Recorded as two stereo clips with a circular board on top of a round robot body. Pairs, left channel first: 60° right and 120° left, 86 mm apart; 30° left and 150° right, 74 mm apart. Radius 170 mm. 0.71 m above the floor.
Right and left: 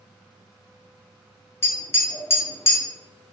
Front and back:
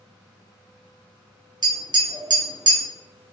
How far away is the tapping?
About 0.6 m.